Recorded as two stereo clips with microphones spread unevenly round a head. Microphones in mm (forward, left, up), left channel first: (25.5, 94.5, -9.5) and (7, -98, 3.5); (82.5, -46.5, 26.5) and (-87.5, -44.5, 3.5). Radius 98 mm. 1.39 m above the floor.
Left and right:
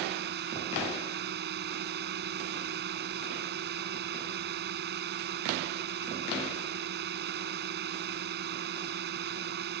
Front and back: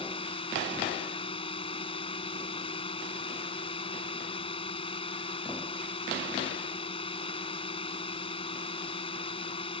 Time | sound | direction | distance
0.0 | a drone | 60° right | ?